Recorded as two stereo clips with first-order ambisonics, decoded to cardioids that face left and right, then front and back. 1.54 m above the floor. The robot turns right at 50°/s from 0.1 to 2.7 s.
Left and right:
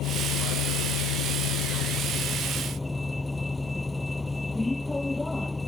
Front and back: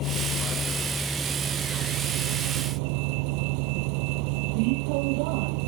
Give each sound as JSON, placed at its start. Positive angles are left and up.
{"t": 0.0, "sound": "a vehicle", "azimuth_deg": 45}